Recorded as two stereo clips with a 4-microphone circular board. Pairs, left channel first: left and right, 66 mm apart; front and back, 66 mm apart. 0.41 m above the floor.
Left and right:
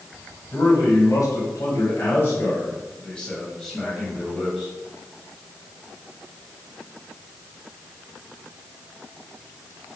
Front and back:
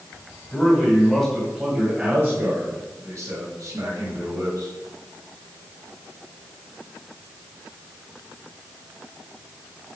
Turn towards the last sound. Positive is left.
turn(degrees=-175)